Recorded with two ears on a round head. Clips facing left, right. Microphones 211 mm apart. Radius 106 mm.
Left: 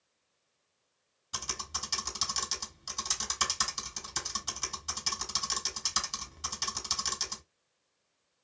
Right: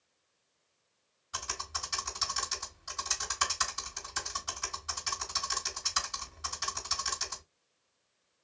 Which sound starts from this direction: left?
Typing on a keyboard, at 1.3 s.